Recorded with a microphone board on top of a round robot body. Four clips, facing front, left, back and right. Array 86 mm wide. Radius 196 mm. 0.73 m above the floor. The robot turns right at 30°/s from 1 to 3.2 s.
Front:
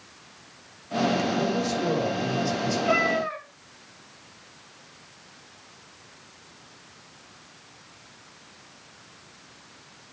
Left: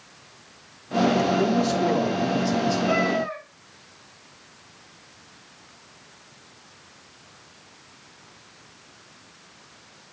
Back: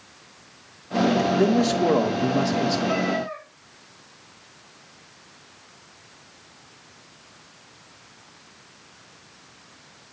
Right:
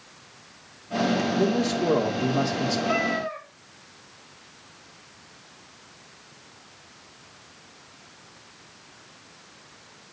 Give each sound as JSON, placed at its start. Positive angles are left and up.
{"t": 1.3, "sound": "a man speaking", "azimuth_deg": 175, "distance_m": 1.6}
{"t": 2.9, "sound": "a cat meowing", "azimuth_deg": 25, "distance_m": 1.3}